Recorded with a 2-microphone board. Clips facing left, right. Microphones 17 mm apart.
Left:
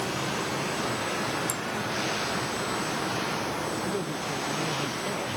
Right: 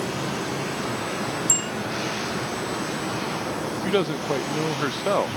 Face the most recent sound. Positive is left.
turn(degrees=-75)  # may be behind; listen again after turning